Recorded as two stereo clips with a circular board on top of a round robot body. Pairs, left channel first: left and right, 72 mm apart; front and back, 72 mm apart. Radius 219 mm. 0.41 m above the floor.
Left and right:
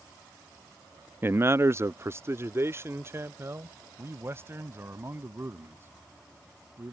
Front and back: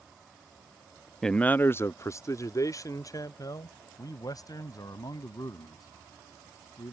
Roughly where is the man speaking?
Right.